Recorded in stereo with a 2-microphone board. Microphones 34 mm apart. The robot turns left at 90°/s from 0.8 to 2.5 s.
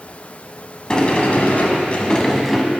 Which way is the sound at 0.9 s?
145° left.